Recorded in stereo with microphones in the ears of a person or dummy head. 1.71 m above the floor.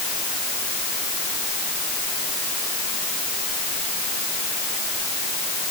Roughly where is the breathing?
No breathing in this recording.